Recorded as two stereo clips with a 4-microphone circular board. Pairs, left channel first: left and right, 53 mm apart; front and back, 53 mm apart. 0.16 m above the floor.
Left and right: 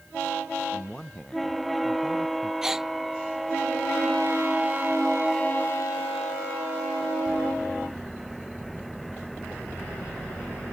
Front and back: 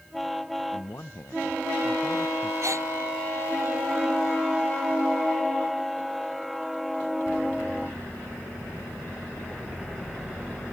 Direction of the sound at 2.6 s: 170° right.